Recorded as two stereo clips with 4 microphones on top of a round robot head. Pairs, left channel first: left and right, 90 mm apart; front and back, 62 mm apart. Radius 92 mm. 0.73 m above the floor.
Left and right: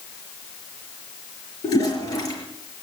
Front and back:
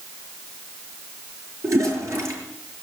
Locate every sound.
1.6 s a toilet flushing: 140° left, 5.5 m